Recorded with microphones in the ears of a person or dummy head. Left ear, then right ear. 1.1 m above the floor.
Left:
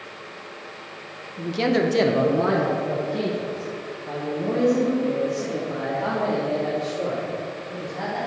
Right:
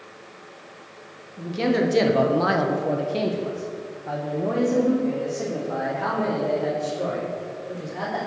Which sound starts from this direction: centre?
A man speaking, at 1.4 s.